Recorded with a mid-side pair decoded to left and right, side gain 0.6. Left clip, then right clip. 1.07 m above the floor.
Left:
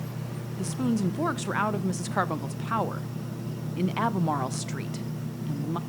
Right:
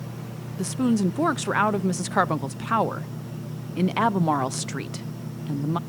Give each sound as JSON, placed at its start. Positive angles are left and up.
{"t": 0.6, "sound": "a woman speaking", "azimuth_deg": -30, "distance_m": 0.6}